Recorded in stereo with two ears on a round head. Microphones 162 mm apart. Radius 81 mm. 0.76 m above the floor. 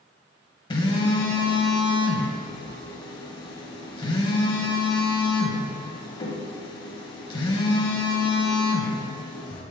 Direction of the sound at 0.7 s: 25° left (ahead or behind).